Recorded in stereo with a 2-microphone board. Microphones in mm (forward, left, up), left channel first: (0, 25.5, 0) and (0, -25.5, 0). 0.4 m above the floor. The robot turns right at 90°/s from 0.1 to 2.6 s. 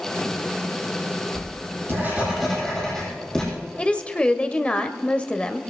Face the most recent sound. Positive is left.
turn(degrees=25)  # may be behind; listen again after turning